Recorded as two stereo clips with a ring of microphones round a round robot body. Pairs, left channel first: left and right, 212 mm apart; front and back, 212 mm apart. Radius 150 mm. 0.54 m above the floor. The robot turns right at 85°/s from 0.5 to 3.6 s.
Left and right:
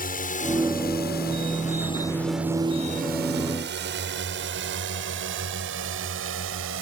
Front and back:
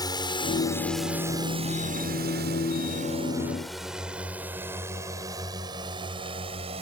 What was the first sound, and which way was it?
A drone, 65° left.